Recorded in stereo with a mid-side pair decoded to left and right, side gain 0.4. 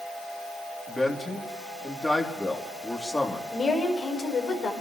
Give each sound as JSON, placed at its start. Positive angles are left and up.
{"t": 0.9, "sound": "a man speaking", "azimuth_deg": 20, "distance_m": 3.5}
{"t": 3.5, "sound": "a woman speaking", "azimuth_deg": 55, "distance_m": 5.0}